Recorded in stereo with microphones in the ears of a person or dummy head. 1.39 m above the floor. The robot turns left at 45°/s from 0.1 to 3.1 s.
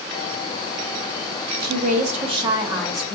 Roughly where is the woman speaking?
Behind right.